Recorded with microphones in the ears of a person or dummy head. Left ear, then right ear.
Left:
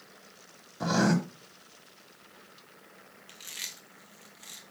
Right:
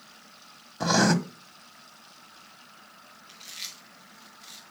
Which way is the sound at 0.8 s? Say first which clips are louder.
Right 4 dB; 25° right (ahead or behind).